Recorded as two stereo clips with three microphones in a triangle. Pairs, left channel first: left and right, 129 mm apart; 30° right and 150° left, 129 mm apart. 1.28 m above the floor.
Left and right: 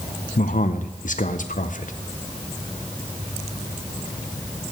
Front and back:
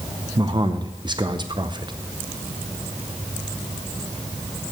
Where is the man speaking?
95° left, 0.6 m.